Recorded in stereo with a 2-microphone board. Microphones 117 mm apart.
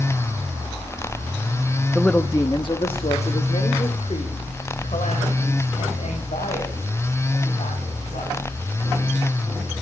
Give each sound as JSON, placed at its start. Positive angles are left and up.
{"t": 1.9, "sound": "a woman speaking", "side_deg": 0, "distance_m": 0.6}